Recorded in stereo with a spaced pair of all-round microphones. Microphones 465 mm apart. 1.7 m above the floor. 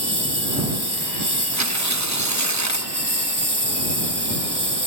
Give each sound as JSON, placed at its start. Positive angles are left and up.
{"t": 0.0, "sound": "a lawn mower", "side_deg": -55}
{"t": 1.5, "sound": "tearing paper", "side_deg": -35}